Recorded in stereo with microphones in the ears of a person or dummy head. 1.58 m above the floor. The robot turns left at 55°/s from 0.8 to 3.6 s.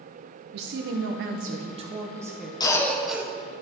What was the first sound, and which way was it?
A woman speaking, 90° right.